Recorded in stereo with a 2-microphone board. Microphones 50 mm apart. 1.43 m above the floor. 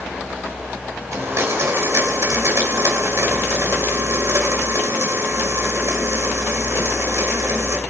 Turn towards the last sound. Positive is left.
turn(degrees=-65)  # may be behind; listen again after turning